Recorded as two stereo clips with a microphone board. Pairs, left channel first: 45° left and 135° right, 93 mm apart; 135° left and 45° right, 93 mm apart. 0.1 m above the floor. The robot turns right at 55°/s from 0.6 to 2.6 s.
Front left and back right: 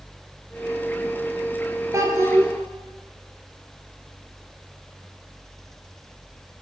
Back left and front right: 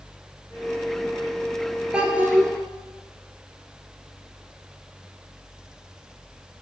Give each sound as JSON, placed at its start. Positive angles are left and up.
{"t": 1.9, "sound": "a child speaking", "azimuth_deg": -120, "distance_m": 0.9}